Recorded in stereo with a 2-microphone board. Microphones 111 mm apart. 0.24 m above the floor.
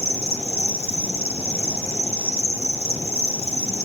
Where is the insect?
65° left (ahead or behind), 1.5 m.